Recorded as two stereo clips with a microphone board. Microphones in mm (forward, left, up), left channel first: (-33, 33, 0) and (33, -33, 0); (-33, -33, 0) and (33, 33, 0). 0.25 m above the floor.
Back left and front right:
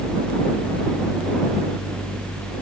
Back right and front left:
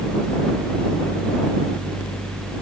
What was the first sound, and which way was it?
Only background noise.